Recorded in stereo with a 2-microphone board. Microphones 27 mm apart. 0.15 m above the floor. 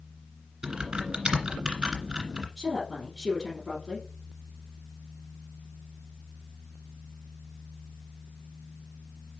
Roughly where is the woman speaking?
Left.